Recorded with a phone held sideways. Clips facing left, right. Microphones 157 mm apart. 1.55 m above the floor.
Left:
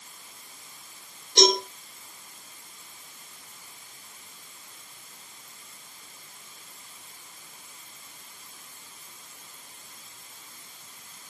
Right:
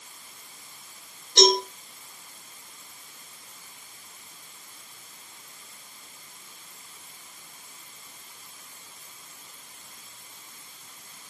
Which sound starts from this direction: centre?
A cowbell, at 1.4 s.